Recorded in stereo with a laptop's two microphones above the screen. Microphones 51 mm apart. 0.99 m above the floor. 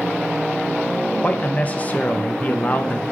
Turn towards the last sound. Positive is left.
turn(degrees=30)  # may be behind; listen again after turning